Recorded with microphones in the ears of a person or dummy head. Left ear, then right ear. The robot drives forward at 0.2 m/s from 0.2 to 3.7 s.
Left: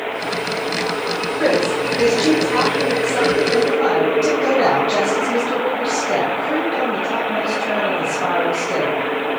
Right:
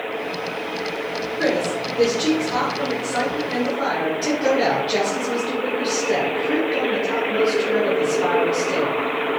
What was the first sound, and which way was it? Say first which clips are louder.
A woman speaking: left 4 dB; 35° right (ahead or behind).